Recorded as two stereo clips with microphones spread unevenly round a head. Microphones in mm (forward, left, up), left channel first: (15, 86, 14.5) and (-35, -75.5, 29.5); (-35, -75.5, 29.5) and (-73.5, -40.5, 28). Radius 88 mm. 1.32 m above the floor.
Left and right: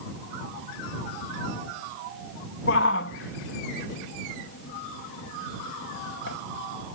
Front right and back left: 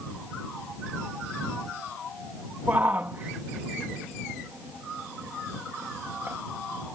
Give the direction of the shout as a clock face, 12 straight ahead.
10 o'clock.